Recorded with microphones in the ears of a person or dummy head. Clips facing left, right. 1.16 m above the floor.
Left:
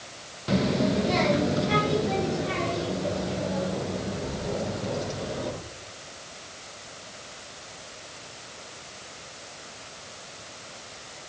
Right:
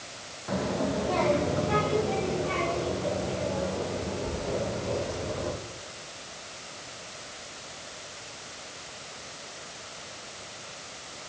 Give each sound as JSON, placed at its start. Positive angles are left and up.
{"t": 0.5, "sound": "a child speaking", "side_deg": 35, "distance_m": 0.5}